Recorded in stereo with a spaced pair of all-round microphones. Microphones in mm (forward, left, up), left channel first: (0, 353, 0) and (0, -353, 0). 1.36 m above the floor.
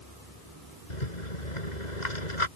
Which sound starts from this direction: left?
A rattle, at 0.9 s.